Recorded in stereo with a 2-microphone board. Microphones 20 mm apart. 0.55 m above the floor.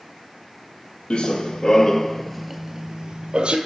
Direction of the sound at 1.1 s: 55° left (ahead or behind).